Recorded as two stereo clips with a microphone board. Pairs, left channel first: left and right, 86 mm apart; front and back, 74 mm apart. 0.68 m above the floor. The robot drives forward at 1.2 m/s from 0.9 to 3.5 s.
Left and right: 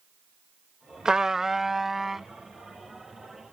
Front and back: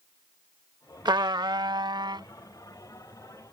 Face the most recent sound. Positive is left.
turn(degrees=180)